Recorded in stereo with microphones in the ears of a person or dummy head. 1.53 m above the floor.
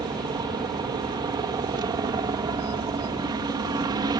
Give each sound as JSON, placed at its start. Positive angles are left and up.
{"t": 0.0, "sound": "a helicopter", "side_deg": -20}